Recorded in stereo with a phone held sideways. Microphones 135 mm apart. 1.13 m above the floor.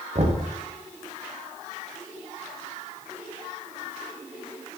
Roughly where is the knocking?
Right.